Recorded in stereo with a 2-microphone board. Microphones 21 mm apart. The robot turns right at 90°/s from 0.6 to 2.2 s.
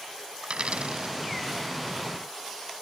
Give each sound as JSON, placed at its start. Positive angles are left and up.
{"t": 0.4, "sound": "a dropped coin", "side_deg": -65}